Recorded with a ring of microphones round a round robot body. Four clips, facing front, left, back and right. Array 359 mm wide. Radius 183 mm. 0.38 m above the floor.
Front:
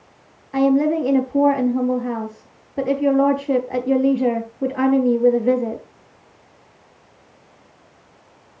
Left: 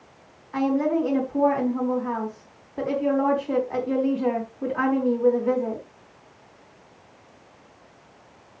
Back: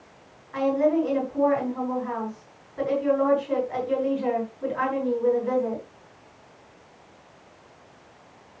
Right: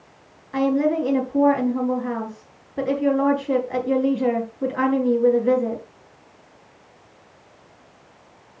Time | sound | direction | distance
0.5 | a woman speaking | 35° right | 4 m